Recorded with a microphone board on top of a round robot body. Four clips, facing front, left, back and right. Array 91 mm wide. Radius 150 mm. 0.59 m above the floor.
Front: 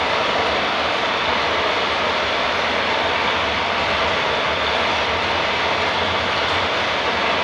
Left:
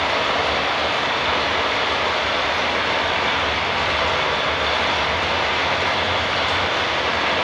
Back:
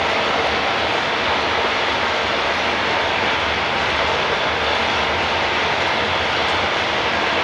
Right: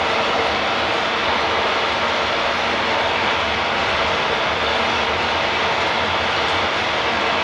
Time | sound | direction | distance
0.0 | running water | 160° right | 2.5 m